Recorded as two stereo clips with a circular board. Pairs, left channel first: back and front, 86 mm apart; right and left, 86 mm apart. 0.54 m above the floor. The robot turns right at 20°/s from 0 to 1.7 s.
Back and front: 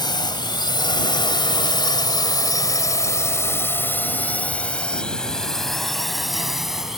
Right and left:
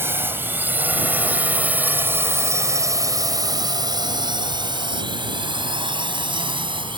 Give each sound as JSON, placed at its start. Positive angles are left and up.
{"t": 0.0, "sound": "a drone", "azimuth_deg": 150}